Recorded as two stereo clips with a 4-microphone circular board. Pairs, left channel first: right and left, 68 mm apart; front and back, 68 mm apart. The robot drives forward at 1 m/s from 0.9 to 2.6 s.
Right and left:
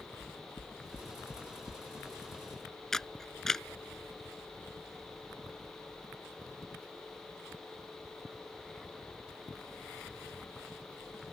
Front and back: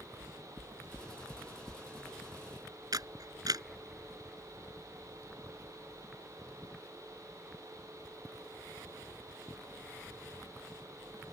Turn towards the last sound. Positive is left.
turn(degrees=-175)